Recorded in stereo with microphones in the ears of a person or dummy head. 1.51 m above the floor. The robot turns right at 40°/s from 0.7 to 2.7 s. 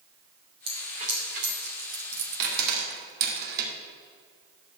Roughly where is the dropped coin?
Right.